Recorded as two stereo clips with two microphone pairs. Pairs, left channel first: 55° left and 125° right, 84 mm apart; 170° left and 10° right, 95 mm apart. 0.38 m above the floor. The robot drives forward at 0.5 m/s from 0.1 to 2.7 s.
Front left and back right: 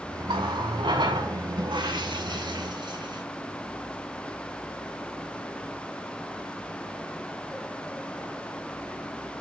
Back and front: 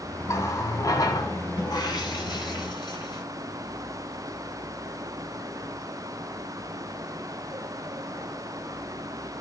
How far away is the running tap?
About 1.6 m.